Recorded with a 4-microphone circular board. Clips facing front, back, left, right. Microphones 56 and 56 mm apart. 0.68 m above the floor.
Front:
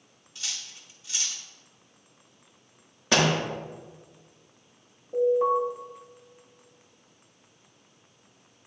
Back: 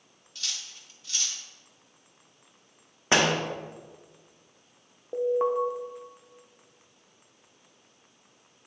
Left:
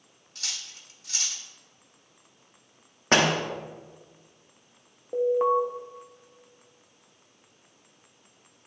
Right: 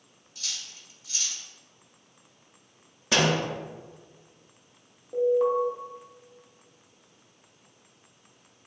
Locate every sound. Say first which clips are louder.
0.3 s cutlery clinking: even, left 1 dB; 80° left, 0.8 m
3.1 s a door slam: even, left 2 dB; 120° left, 0.9 m
5.1 s an alarm: front 3 dB, even; 145° left, 0.8 m